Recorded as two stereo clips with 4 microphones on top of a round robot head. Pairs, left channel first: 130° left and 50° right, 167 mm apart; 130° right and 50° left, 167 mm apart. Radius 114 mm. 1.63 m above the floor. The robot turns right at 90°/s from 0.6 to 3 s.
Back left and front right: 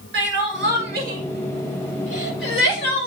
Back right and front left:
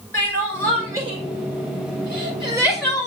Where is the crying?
55° right, 6.5 m; by 3.1 s 165° left, 6.5 m.